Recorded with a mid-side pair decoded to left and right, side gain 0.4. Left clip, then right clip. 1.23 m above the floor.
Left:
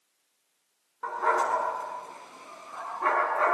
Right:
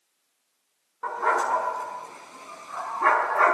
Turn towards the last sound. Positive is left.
turn(degrees=-55)